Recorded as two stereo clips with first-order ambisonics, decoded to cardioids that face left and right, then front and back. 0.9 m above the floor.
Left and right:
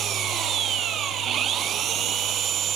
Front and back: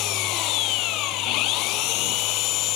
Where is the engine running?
35° right.